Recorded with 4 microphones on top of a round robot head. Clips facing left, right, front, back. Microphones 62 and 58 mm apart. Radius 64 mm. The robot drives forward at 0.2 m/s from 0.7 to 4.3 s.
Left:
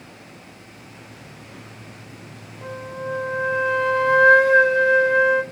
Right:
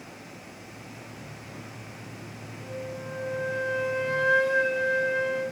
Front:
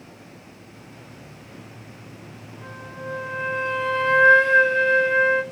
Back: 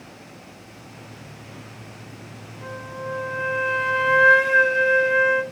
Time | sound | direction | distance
2.6 | a flute | 95° left | 4 m